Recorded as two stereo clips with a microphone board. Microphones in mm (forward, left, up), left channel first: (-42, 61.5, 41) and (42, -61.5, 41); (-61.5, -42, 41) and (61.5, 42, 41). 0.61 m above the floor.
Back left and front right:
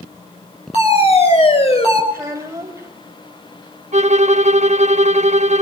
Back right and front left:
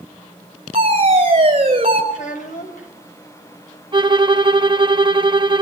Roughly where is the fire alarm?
Left.